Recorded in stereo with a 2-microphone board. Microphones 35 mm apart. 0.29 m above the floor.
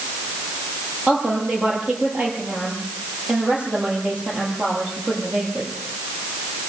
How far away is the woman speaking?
About 7.5 m.